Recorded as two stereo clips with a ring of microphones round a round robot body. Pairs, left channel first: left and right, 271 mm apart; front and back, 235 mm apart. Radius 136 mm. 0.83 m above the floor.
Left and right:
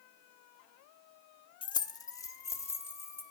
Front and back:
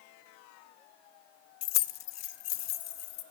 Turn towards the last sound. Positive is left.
turn(degrees=10)